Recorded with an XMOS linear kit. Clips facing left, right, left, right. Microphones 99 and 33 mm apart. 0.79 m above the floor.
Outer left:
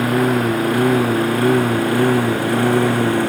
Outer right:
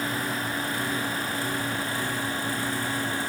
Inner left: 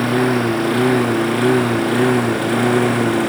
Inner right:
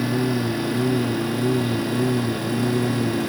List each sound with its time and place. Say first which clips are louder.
0.0 s a lawn mower: outer left 13 dB, inner left 6 dB; 65° left (ahead or behind)